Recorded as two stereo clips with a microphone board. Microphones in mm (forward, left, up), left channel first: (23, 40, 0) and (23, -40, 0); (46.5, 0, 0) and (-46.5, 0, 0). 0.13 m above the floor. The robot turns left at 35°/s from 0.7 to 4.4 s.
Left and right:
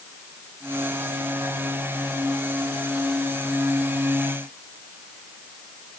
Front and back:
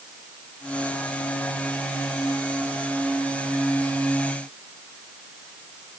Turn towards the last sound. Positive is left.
No sound to turn to.